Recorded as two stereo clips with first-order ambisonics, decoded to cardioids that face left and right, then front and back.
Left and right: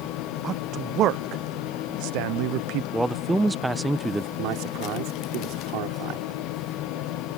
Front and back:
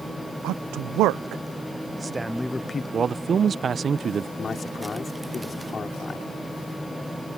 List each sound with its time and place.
0.4 s a man speaking: 150° right; by 2.8 s 65° right
2.9 s a man speaking: 165° right
4.4 s a man speaking: 65° right